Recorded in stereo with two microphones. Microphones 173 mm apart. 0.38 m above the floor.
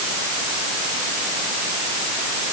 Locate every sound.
Only background noise.